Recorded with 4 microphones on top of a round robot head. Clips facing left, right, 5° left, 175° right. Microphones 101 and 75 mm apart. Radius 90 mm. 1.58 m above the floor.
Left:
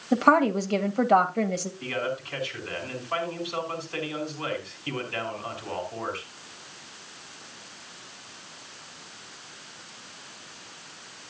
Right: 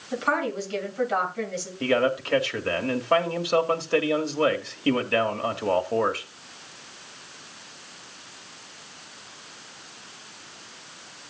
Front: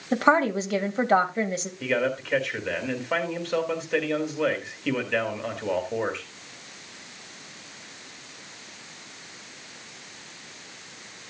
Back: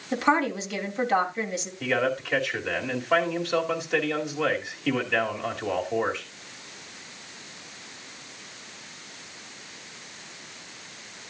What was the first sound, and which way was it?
A woman speaking, 55° left.